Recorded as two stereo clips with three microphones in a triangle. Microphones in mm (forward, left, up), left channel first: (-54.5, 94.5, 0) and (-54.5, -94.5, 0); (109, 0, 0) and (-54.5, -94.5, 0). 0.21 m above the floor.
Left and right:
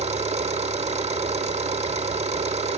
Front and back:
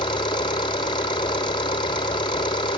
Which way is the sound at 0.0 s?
35° right.